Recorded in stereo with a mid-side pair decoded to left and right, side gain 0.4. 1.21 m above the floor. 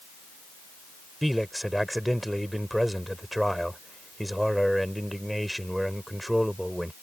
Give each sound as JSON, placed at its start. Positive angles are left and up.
{"t": 1.2, "sound": "a man speaking", "azimuth_deg": 0}